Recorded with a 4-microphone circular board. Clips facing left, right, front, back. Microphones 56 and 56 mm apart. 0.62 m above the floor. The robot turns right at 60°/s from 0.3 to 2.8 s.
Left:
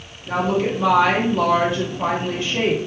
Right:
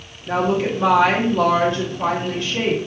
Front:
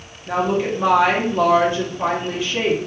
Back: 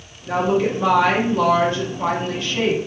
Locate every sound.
0.3 s a woman speaking: 65° right, 0.7 m; by 2.8 s 80° left, 0.7 m